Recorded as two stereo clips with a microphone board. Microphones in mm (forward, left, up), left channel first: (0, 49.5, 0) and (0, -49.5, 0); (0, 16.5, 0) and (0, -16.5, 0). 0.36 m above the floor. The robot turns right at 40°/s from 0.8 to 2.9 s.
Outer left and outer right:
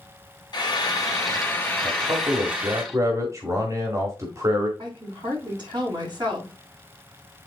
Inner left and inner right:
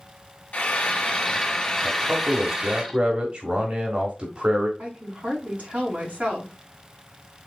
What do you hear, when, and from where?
0.5 s frying: 125° left, 2 m; by 2.8 s 155° right, 2 m
1.8 s a man speaking: 85° right, 1.7 m; by 4.7 s 45° right, 1.7 m
4.8 s a woman speaking: 55° right (ahead or behind), 3.5 m